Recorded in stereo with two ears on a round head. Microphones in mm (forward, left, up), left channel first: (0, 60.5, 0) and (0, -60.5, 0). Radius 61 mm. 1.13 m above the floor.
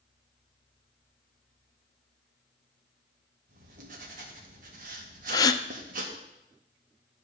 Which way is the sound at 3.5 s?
65° right (ahead or behind).